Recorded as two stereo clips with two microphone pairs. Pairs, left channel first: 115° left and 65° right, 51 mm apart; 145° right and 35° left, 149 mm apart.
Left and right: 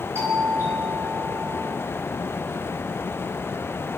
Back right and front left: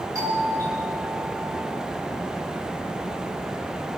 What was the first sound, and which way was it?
A doorbell, 30° right.